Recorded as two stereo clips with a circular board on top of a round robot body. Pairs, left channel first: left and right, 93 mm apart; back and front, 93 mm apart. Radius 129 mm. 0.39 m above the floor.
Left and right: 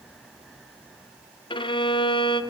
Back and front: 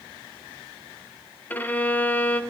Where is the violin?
110° left, 1.1 m.